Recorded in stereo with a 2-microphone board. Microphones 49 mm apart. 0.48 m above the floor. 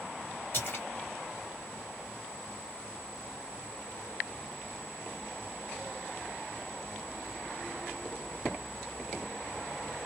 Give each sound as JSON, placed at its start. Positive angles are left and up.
{"t": 0.5, "sound": "a splash", "side_deg": 45, "distance_m": 2.0}